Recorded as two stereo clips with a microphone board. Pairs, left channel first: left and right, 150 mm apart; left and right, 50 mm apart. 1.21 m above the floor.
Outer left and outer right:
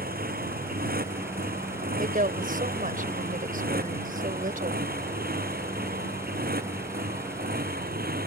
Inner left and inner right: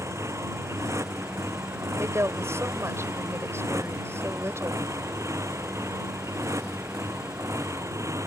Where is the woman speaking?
65° right (ahead or behind).